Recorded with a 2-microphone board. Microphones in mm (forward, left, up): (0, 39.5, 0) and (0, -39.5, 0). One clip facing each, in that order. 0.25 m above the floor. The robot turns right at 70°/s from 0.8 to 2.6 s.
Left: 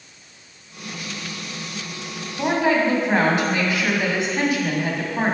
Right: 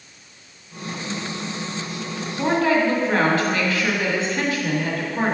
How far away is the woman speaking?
About 1.8 m.